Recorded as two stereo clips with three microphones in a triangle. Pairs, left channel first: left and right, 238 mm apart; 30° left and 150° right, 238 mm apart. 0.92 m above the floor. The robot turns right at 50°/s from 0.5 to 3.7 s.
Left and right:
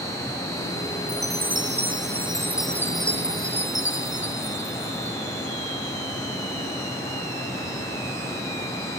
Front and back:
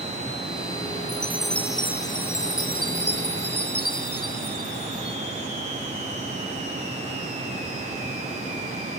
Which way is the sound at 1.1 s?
80° right.